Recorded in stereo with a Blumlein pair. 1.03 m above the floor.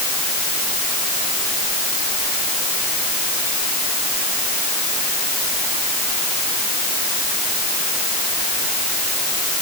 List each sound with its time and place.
Only background noise.